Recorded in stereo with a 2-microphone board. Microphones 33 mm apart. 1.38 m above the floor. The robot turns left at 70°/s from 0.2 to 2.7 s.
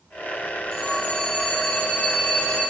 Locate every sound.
0.7 s a phone ringing: 165° left, 3.5 m; by 2.6 s 30° left, 3.5 m